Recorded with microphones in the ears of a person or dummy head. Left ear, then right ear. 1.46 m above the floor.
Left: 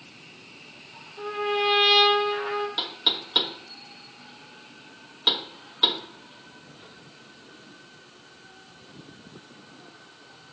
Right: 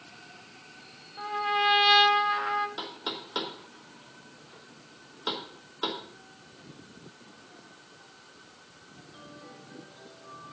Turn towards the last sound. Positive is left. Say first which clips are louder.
# left 11 dB
turn(degrees=5)  # may be behind; listen again after turning